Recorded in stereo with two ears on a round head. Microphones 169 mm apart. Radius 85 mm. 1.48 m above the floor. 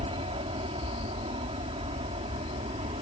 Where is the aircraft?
30° right (ahead or behind).